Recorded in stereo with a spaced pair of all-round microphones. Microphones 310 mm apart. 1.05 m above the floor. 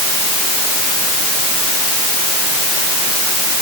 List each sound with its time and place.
Only background noise.